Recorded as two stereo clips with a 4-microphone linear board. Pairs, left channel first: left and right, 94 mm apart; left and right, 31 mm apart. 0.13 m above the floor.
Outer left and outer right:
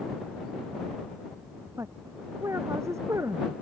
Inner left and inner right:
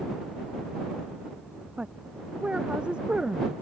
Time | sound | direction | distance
1.8 | a woman speaking | 30° right (ahead or behind) | ?